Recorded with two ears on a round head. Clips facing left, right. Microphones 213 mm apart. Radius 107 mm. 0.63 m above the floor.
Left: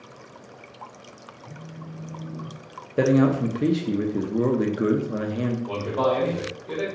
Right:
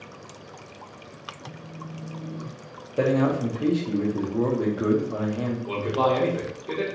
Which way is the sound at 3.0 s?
25° left (ahead or behind).